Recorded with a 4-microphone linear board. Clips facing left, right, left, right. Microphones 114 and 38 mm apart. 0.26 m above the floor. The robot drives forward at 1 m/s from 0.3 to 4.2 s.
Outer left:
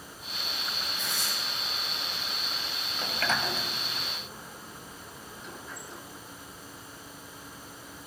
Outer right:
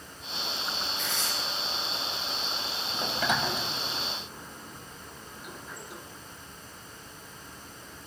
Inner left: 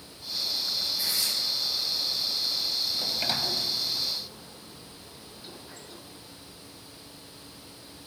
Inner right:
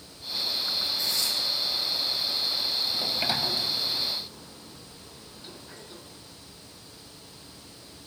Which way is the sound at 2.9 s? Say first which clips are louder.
Outer right 2 dB, inner right 2 dB; 15° right (ahead or behind).